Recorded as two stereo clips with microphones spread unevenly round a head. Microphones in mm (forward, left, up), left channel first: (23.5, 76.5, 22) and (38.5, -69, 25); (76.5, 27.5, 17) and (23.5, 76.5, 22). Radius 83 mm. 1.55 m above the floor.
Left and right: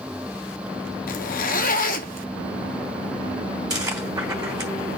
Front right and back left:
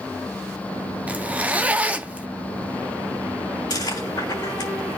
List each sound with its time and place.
1.1 s a zipper: 70° left, 0.7 m
3.7 s chewing: 20° right, 3 m